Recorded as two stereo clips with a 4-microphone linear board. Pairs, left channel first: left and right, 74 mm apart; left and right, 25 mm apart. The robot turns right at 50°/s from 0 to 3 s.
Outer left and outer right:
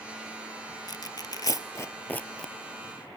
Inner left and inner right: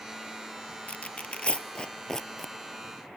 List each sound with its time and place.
0.9 s tearing paper: 65° left (ahead or behind), 0.8 m; by 2.5 s 10° left (ahead or behind), 0.8 m